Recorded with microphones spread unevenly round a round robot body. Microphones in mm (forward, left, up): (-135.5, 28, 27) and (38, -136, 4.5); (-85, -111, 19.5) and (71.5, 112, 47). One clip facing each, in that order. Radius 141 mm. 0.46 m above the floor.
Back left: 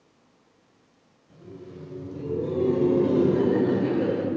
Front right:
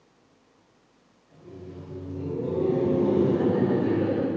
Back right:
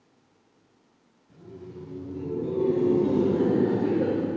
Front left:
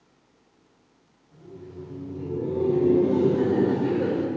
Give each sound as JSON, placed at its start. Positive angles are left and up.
{"t": 1.3, "sound": "laughter", "azimuth_deg": -160, "distance_m": 4.0}